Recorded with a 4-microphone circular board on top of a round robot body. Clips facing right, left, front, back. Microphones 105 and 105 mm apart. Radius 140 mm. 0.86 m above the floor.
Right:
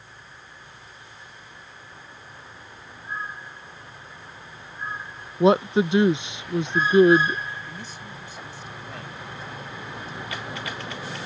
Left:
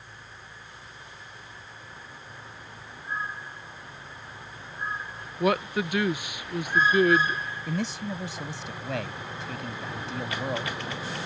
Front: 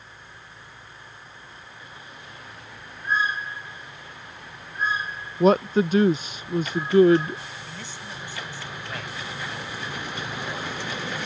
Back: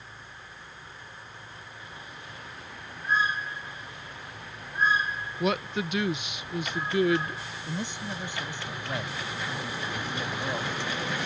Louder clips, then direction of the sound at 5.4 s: Right 7 dB, front 10 dB; 35° right.